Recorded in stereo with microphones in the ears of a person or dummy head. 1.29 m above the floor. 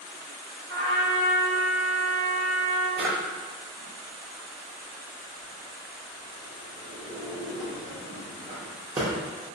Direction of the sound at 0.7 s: 25° left (ahead or behind).